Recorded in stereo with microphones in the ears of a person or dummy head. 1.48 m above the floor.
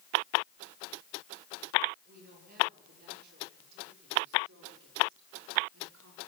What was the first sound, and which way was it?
A woman speaking, 50° right (ahead or behind).